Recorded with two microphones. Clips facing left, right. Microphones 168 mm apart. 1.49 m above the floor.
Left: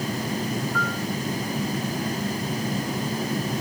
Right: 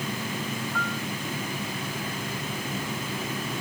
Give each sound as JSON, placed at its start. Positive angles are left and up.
{"t": 0.7, "sound": "a piano", "side_deg": -10}